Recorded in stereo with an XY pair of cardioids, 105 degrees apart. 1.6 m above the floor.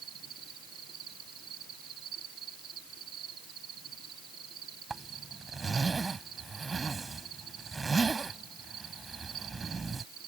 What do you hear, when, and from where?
0.0 s an insect: 65° right
4.9 s a zipper: 30° right